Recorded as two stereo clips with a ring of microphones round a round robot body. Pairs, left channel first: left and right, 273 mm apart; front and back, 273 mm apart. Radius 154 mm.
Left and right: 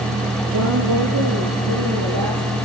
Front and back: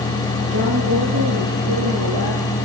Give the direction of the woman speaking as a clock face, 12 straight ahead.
4 o'clock.